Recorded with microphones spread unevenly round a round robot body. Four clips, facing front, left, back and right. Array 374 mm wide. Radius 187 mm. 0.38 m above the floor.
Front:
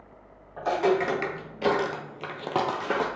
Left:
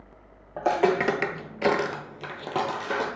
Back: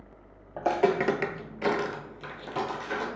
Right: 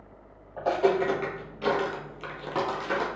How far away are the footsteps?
About 0.7 m.